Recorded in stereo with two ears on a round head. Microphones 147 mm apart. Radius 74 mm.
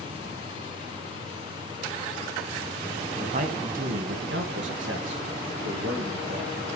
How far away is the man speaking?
About 1.8 m.